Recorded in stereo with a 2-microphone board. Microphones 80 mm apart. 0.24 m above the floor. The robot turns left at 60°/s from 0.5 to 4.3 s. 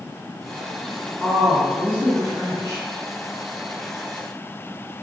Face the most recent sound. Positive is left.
turn(degrees=15)